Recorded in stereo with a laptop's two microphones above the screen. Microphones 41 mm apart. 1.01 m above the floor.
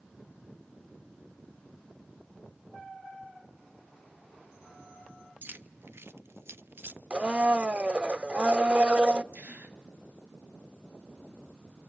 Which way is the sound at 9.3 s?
45° right (ahead or behind).